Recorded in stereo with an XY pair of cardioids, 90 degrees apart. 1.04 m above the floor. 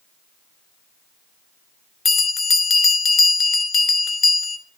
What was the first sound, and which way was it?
A bell, 35° left.